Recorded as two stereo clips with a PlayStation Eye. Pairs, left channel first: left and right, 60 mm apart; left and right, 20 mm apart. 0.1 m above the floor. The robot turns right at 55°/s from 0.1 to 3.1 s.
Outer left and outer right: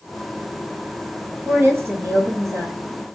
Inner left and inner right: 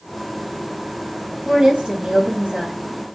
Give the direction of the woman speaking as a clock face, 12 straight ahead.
5 o'clock.